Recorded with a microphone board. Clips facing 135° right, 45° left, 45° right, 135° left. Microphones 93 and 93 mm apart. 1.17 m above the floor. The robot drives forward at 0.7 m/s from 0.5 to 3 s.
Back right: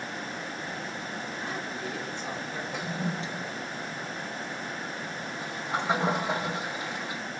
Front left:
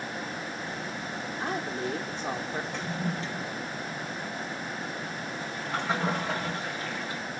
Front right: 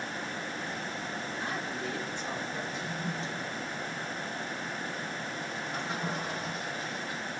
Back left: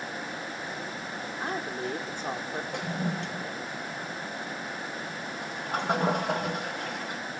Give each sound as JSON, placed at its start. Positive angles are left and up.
{"t": 1.4, "sound": "a woman speaking", "azimuth_deg": 85, "distance_m": 3.0}
{"t": 2.7, "sound": "a toilet flushing", "azimuth_deg": 145, "distance_m": 0.6}